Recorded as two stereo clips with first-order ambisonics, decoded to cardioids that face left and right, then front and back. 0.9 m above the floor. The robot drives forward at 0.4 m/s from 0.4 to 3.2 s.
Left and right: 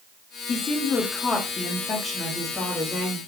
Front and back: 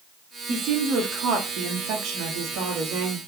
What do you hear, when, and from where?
0.5 s a woman speaking: 135° left, 0.6 m; by 3.2 s 170° left, 1.5 m